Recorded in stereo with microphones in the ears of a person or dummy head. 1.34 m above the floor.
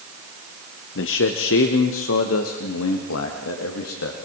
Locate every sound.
0.9 s a man speaking: 60° left (ahead or behind), 1.1 m; by 4.2 s 80° left, 2.5 m